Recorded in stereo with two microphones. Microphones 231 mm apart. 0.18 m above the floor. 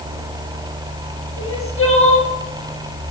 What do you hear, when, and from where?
1.4 s crying: 70° left (ahead or behind), 1.9 m